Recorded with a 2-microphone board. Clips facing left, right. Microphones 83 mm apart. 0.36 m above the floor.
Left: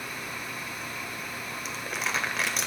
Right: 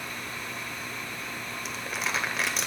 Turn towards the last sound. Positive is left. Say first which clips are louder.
# even
turn(degrees=0)  # may be behind; listen again after turning